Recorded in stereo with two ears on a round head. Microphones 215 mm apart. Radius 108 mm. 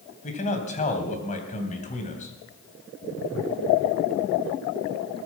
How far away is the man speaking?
About 3 m.